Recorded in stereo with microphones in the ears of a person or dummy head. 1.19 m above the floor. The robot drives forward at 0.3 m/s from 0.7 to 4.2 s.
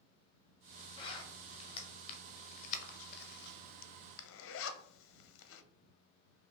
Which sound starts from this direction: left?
A zipper, at 1.0 s.